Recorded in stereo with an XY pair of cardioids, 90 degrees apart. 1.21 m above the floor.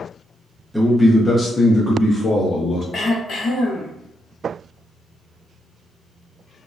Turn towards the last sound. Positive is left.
turn(degrees=65)